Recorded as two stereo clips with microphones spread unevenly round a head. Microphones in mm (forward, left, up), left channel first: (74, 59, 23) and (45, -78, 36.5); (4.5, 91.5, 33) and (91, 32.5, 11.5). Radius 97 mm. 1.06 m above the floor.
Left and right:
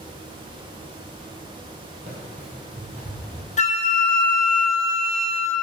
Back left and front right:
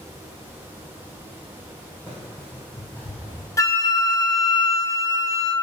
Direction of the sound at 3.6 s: 80° left.